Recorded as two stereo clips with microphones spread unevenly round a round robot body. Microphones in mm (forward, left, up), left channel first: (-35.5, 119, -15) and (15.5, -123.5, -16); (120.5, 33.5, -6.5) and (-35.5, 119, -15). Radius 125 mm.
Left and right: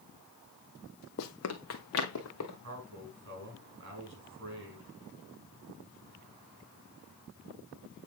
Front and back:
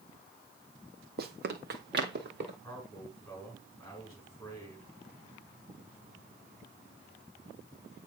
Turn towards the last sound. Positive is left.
turn(degrees=-115)